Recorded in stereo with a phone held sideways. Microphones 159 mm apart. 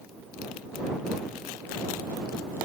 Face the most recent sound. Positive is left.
No sound to turn to.